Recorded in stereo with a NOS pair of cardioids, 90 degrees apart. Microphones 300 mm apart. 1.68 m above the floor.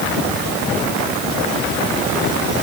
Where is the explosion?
No explosion in this recording.